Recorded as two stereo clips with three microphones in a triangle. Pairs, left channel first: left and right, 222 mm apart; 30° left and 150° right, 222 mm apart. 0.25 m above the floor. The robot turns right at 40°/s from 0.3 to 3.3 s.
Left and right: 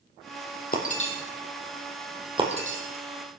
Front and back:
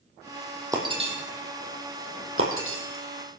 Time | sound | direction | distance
0.7 | breaking glass | 135° left | 3 m